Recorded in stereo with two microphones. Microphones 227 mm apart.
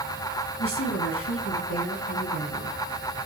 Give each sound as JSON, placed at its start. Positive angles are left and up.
{"t": 0.6, "sound": "a woman speaking", "side_deg": 80, "distance_m": 6.0}